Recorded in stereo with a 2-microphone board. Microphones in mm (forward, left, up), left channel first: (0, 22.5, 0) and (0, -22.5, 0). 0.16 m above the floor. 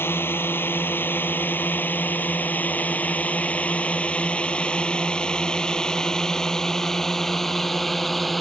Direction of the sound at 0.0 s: 55° left (ahead or behind).